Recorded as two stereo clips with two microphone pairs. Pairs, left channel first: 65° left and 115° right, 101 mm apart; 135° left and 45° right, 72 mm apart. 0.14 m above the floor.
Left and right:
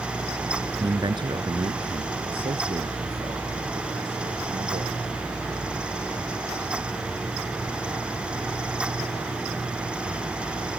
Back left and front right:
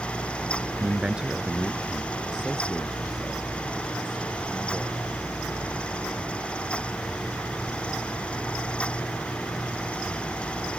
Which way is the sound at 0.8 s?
110° right.